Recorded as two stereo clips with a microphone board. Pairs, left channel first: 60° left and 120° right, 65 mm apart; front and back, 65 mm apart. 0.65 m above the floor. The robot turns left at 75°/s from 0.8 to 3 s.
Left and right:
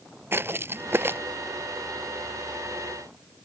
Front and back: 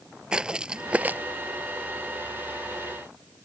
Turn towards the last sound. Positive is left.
turn(degrees=80)